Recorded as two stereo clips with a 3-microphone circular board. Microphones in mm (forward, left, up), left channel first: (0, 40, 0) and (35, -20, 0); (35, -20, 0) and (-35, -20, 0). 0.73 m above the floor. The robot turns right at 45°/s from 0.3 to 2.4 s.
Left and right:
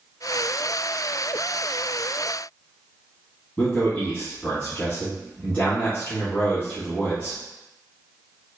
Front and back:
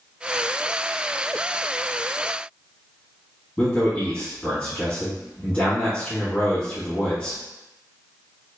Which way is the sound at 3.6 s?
65° left.